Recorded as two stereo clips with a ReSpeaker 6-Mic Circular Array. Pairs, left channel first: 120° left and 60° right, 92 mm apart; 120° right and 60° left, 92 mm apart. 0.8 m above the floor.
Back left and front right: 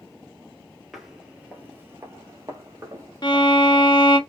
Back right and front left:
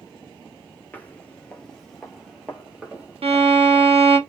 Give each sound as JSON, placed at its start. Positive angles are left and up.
{"t": 0.9, "sound": "footsteps", "azimuth_deg": -140, "distance_m": 0.8}
{"t": 3.2, "sound": "a violin", "azimuth_deg": 75, "distance_m": 0.8}